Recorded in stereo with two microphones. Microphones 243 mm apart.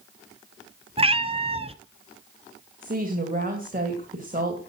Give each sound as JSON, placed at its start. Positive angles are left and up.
{"t": 1.0, "sound": "a cat meowing", "side_deg": -25, "distance_m": 0.7}
{"t": 2.8, "sound": "a woman speaking", "side_deg": -35, "distance_m": 2.5}